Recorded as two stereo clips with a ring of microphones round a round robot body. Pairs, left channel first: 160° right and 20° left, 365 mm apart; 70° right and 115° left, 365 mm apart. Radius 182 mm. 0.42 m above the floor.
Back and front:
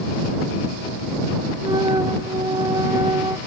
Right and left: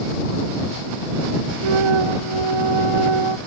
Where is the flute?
100° left.